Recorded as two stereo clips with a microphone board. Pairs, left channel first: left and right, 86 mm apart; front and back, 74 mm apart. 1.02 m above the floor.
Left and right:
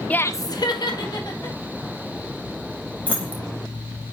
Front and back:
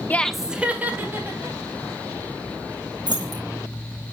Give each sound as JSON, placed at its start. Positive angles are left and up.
{"t": 0.1, "sound": "laughter", "azimuth_deg": 30, "distance_m": 0.5}
{"t": 3.1, "sound": "keys jangling", "azimuth_deg": 165, "distance_m": 2.0}